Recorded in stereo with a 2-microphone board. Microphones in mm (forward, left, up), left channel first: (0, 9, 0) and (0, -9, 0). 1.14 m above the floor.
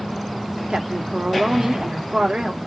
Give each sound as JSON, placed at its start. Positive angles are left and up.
{"t": 0.7, "sound": "a woman speaking", "side_deg": -70, "distance_m": 0.8}